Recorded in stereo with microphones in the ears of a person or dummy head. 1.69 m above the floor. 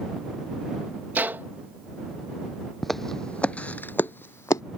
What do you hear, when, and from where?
1.1 s a gunshot: 10° right (ahead or behind)
2.8 s footsteps: centre (ahead or behind); by 4.6 s 15° left (ahead or behind)